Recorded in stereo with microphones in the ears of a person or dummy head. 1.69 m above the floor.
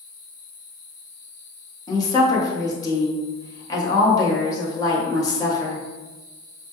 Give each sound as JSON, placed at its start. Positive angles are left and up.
{"t": 1.9, "sound": "a woman speaking", "side_deg": 25, "distance_m": 1.1}